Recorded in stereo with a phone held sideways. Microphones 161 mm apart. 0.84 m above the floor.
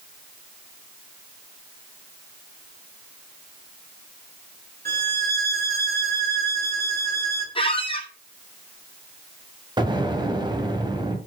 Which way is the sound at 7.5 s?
35° left (ahead or behind).